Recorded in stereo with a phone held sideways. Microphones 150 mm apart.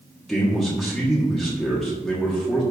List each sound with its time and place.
0.3 s a man speaking: centre (ahead or behind), 1.5 m